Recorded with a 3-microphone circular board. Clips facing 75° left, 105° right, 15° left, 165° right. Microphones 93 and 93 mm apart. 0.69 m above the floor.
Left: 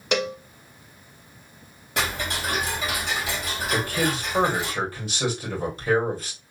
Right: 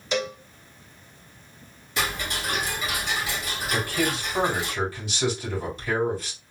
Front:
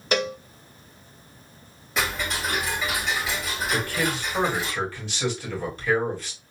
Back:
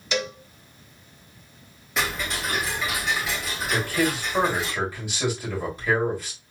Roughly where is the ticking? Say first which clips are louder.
Left 1 dB, even; left.